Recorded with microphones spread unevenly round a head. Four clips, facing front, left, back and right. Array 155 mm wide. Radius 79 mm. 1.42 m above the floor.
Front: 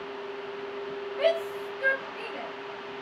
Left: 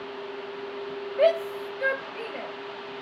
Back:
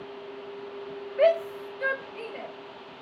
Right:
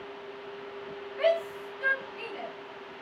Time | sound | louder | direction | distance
1.2 | a shout | left 4 dB, back 4 dB | 135° left | 0.9 m